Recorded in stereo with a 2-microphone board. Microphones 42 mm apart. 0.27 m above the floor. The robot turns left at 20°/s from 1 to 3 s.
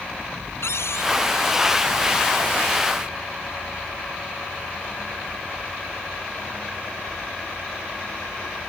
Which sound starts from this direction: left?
A cupboard door, at 0.6 s.